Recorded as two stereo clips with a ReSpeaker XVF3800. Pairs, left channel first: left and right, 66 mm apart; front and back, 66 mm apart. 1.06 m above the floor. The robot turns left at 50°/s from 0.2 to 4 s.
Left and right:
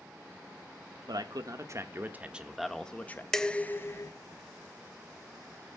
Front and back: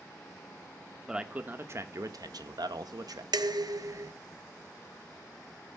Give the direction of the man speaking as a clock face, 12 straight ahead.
3 o'clock.